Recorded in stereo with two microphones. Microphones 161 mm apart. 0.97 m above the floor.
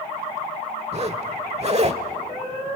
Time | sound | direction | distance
0.9 | a zipper | 40° right (ahead or behind) | 1.1 m